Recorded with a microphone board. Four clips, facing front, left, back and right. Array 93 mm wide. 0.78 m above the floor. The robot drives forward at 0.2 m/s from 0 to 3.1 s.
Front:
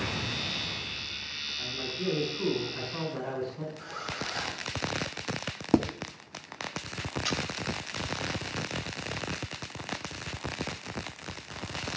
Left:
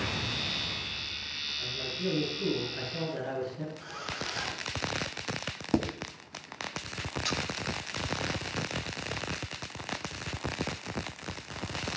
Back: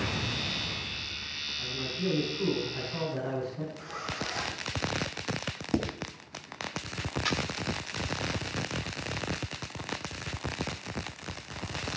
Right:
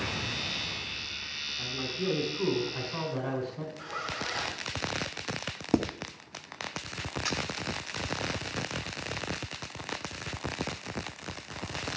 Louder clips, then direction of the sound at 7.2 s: Even, back 2 dB; 160° right.